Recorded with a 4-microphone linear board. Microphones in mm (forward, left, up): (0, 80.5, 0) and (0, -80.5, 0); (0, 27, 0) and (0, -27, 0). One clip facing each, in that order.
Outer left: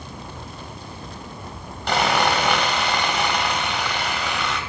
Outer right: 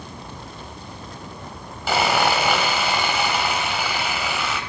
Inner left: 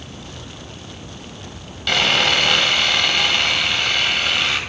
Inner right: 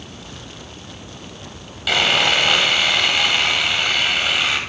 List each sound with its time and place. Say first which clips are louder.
1.9 s sawing: even, even; 5° right (ahead or behind), 1.2 m